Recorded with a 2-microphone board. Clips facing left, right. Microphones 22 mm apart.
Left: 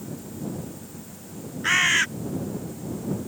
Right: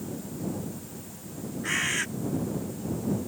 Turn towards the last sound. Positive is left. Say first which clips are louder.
# left 8 dB
turn(degrees=55)  # may be behind; listen again after turning